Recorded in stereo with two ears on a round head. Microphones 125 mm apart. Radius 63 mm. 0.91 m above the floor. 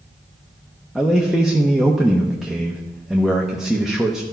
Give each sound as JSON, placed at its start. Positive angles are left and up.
{"t": 0.9, "sound": "a man speaking", "side_deg": -5, "distance_m": 0.8}